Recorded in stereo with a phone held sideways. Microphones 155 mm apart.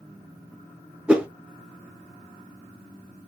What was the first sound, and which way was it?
A whoosh, 5° right (ahead or behind).